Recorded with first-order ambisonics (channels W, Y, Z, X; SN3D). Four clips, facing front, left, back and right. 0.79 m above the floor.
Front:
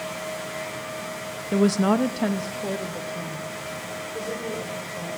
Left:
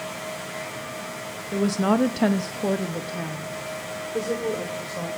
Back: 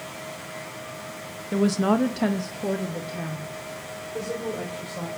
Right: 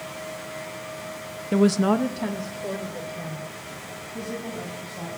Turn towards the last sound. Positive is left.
turn(degrees=100)